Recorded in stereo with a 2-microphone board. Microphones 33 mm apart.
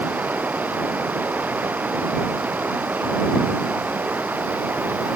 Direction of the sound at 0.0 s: 90° right.